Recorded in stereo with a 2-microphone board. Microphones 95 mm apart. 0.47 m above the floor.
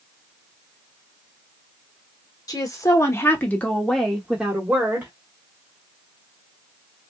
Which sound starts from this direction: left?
A woman speaking, at 2.5 s.